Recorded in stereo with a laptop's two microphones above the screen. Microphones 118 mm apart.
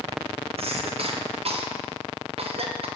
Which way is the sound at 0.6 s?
55° right (ahead or behind).